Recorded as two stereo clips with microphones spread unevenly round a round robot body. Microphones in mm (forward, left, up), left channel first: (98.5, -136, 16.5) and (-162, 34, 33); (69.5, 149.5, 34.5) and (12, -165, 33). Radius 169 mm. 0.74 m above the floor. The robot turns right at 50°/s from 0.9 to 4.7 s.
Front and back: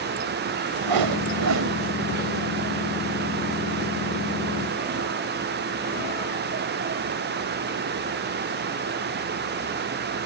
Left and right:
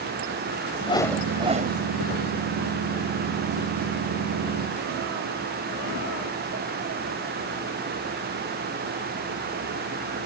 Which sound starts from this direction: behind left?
A whoosh, at 0.8 s.